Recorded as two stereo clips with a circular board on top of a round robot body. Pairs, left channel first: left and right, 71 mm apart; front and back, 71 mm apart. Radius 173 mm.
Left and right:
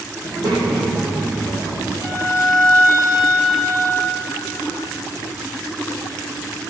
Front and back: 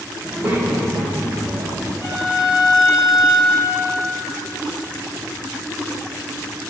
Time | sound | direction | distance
0.2 | a child speaking | 110° right | 4 m
2.0 | a violin | 40° right | 3.5 m